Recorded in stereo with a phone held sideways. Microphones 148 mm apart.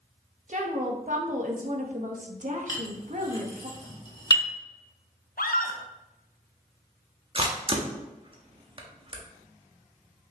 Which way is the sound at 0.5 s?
55° right (ahead or behind).